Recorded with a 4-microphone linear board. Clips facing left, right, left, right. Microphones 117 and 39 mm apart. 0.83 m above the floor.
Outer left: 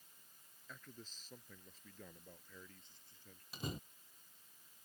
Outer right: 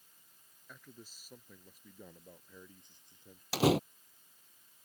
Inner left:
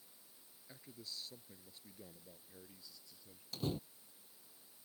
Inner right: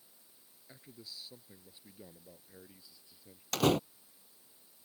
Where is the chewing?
I don't hear chewing.